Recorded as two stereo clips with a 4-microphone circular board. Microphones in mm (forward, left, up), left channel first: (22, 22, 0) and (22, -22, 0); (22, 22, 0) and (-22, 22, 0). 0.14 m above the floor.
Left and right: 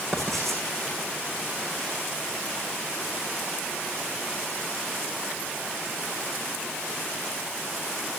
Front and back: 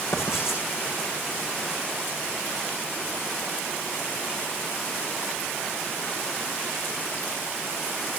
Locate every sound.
0.1 s writing: straight ahead, 6.5 m